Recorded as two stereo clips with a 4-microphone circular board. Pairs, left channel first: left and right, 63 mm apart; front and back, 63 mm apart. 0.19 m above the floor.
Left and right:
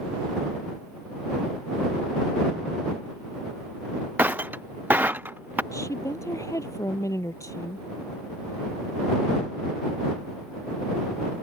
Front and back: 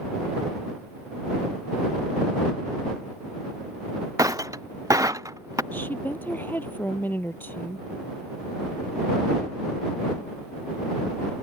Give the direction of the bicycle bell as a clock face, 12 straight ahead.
I don't hear a bicycle bell.